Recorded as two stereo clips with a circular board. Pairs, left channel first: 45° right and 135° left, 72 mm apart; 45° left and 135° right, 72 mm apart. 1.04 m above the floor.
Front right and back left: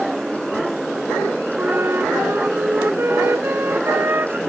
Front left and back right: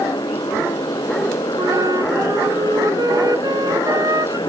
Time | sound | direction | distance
0.0 | a motorcycle | 50° left | ?
1.6 | a flute | 165° right | ?